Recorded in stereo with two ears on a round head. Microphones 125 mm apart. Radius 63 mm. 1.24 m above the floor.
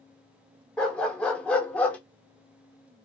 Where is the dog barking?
5° left (ahead or behind), 0.9 m; by 2.0 s 10° left (ahead or behind), 0.8 m.